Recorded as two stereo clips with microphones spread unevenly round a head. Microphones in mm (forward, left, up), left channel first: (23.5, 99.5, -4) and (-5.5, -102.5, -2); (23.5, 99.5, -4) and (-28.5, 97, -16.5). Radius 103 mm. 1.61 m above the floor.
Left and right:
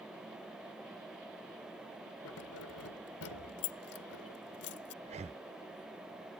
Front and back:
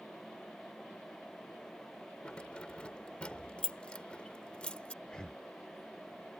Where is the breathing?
55° right.